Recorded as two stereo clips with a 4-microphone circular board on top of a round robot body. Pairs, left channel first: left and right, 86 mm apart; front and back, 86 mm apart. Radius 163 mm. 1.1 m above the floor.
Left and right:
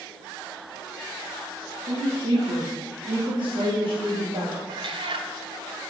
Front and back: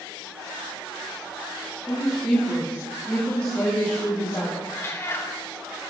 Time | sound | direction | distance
1.9 | a woman speaking | 80° right | 3 m
4.7 | a cat meowing | 65° right | 0.7 m